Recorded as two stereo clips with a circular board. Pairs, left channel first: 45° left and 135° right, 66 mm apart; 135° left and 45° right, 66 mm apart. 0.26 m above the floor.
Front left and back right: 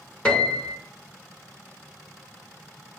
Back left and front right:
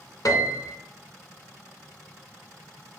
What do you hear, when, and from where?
0.2 s a piano: 115° left, 1.0 m